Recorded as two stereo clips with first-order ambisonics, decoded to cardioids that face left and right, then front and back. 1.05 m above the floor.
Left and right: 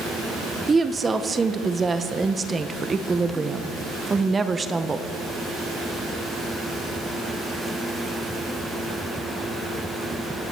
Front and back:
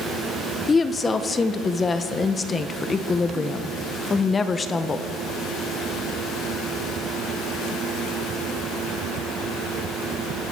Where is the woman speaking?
40° right, 0.6 m.